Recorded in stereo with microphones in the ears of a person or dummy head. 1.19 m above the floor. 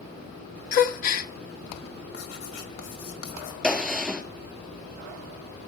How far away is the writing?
About 1.8 m.